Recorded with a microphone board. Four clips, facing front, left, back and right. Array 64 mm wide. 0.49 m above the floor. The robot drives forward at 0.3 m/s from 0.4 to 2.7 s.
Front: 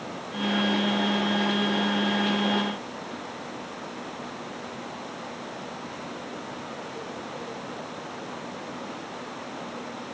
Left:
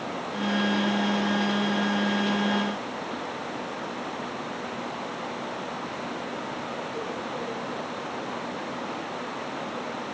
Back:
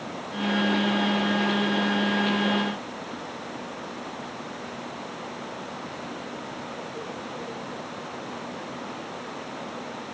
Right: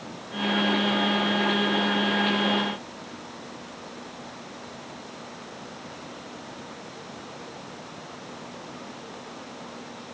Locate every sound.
Only background noise.